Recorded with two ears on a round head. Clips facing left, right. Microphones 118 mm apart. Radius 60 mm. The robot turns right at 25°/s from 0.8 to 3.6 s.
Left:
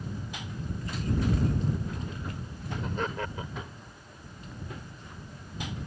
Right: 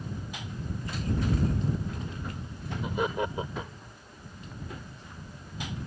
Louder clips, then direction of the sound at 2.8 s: Right 4 dB; 5° right (ahead or behind).